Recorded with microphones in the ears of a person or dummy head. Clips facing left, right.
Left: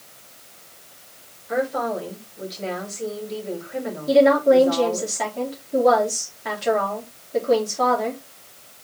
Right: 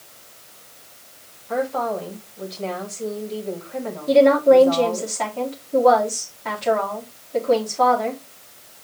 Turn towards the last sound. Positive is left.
turn(degrees=10)  # may be behind; listen again after turning